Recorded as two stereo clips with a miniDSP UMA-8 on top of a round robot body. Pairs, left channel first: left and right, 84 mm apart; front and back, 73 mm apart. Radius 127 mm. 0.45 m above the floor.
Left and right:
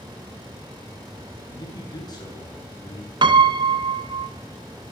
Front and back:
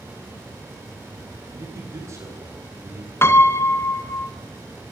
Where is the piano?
55° right, 1.5 m.